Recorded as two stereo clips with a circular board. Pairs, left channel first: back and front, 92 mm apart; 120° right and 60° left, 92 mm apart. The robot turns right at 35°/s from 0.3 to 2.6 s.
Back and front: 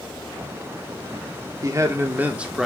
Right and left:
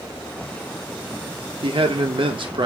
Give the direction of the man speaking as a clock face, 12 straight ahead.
10 o'clock.